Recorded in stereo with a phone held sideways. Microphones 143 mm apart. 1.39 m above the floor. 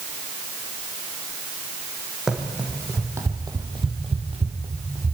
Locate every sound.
2.3 s running footsteps: centre (ahead or behind), 2.5 m; by 5.1 s 45° right (ahead or behind), 2.5 m